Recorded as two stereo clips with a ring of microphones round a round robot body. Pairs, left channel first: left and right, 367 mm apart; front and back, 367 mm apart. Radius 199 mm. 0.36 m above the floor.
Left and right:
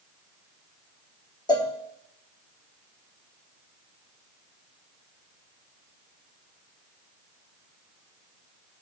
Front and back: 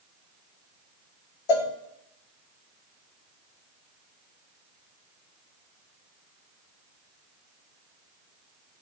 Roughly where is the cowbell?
Ahead.